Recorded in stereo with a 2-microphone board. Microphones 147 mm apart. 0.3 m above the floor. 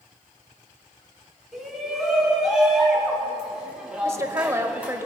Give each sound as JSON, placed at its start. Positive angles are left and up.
{"t": 1.5, "sound": "a shout", "side_deg": 0, "distance_m": 4.0}
{"t": 4.0, "sound": "a woman speaking", "side_deg": -20, "distance_m": 1.0}